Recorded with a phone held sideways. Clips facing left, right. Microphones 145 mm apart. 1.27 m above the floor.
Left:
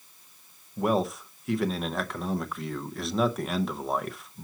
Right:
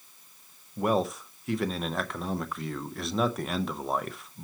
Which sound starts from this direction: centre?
A man speaking, at 0.8 s.